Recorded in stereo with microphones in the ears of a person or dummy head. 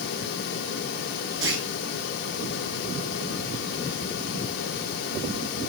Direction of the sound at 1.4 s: 25° right (ahead or behind).